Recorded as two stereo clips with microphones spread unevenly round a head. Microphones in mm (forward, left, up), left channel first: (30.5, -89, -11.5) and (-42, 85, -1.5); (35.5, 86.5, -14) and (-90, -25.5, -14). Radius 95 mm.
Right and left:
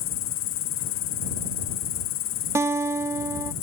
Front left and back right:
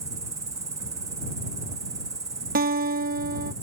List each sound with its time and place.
0.0 s an insect: 65° right
2.5 s a guitar: 170° right